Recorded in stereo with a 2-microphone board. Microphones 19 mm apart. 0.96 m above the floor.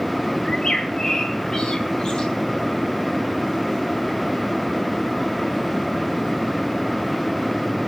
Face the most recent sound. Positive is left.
turn(degrees=50)  # may be behind; listen again after turning